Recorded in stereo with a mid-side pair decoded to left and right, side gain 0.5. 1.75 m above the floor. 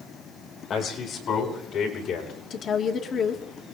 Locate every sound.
0.7 s a man speaking: 55° left, 8.5 m; by 2.3 s 70° left, 7 m
2.5 s a woman speaking: 55° left, 3 m